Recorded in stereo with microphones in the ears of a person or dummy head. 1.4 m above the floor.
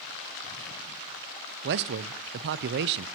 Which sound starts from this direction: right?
A man speaking, at 1.6 s.